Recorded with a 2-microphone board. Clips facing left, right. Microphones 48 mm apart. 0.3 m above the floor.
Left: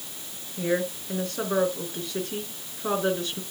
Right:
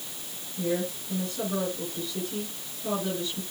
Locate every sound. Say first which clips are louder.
0.6 s a woman speaking: left 3 dB; 55° left (ahead or behind), 4 m